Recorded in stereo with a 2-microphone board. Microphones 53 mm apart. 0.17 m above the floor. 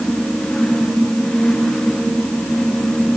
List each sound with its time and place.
Only background noise.